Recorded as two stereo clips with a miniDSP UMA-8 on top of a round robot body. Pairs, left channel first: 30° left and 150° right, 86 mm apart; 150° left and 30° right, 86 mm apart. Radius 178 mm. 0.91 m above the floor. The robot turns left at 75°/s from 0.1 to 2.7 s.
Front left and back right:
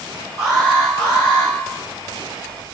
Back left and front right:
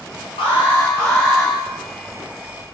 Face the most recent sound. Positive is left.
turn(degrees=-40)